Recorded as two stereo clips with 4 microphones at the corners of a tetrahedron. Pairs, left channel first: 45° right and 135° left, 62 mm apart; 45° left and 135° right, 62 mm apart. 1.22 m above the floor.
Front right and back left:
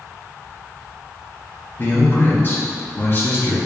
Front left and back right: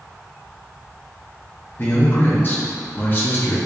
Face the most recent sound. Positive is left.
turn(degrees=0)